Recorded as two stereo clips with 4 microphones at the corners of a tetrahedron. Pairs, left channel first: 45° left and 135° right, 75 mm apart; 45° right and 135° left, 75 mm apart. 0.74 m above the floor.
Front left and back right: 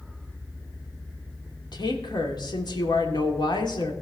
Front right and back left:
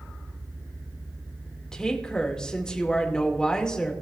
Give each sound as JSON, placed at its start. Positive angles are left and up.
{"t": 1.7, "sound": "a woman speaking", "azimuth_deg": 35, "distance_m": 2.0}